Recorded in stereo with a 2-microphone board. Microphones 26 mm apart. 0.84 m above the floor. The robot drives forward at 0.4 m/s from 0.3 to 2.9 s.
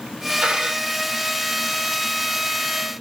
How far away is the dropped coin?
About 2.5 m.